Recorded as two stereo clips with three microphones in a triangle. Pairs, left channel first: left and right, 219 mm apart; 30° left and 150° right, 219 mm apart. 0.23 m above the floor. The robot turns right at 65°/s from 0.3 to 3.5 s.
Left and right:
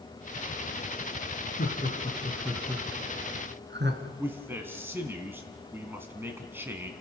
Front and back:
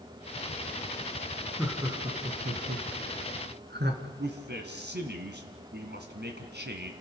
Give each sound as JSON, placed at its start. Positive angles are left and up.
{"t": 1.6, "sound": "laughter", "azimuth_deg": 120, "distance_m": 3.0}
{"t": 4.2, "sound": "a man speaking", "azimuth_deg": -170, "distance_m": 2.5}